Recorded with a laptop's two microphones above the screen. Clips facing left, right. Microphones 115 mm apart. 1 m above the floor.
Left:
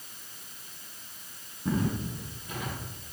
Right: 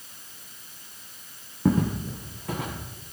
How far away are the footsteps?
About 4 m.